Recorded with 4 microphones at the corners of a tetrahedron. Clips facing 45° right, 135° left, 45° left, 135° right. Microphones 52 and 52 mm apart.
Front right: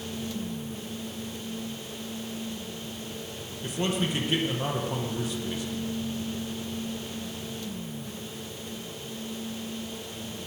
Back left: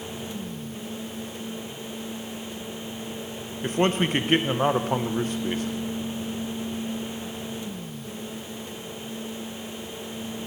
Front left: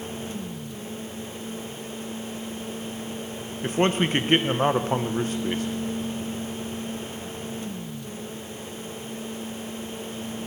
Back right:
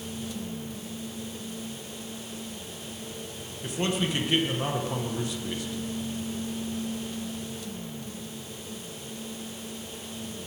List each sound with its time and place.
3.6 s a man speaking: 95° left, 0.7 m